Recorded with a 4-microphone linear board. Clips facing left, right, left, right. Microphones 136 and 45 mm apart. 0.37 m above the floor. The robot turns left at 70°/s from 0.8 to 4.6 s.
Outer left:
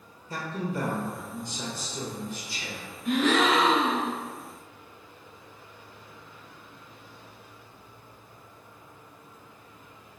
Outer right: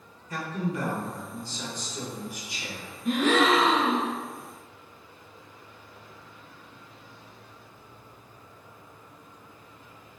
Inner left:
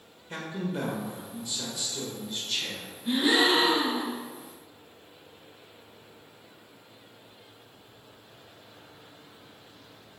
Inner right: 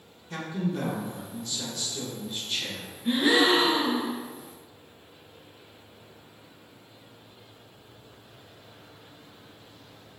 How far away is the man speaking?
About 0.9 m.